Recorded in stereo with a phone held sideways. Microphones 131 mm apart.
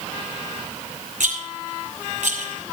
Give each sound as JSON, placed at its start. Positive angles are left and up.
{"t": 1.2, "sound": "a rattle", "side_deg": -70, "distance_m": 5.0}